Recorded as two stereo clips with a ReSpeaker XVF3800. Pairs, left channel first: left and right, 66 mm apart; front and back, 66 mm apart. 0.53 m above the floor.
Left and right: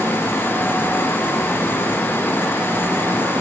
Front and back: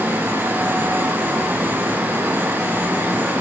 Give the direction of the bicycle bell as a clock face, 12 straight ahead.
No bicycle bell in this recording.